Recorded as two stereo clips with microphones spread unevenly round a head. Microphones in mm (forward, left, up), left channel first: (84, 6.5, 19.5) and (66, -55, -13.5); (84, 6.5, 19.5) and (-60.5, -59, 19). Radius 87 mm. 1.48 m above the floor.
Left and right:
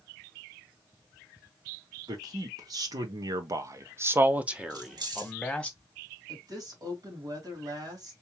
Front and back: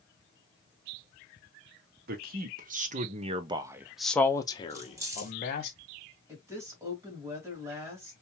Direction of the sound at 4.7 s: 85° right.